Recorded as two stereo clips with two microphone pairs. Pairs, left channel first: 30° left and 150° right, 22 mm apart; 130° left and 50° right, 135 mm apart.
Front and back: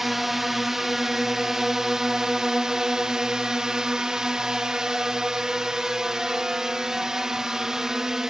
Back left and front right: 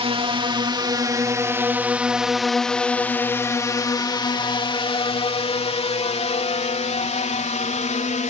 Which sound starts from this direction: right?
A drone, at 0.0 s.